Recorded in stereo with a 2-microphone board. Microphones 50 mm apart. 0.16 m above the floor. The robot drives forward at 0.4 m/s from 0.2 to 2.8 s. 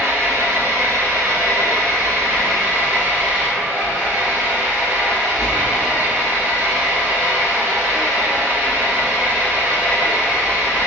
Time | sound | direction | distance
0.0 | an engine running | 55° right (ahead or behind) | 1.0 m